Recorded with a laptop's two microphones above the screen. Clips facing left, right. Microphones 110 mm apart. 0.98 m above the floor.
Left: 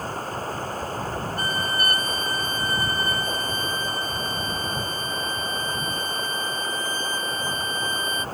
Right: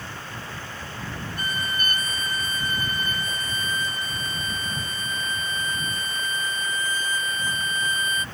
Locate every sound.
0.0 s running water: 40° left (ahead or behind)
1.4 s a violin: 35° left (ahead or behind)